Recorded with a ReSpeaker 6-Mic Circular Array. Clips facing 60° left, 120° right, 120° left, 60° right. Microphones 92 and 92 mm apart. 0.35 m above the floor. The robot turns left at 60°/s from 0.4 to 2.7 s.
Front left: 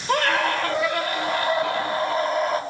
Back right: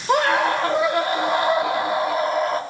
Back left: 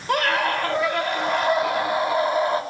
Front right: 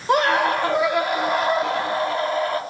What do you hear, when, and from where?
0.1 s a scream: 85° right, 1.5 m; by 2.6 s 145° left, 1.5 m